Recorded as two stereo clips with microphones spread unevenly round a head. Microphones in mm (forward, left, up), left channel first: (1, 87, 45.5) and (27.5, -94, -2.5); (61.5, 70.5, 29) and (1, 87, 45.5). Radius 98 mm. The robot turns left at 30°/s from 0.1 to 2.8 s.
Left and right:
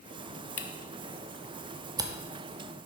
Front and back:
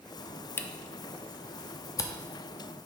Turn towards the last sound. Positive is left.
turn(degrees=-25)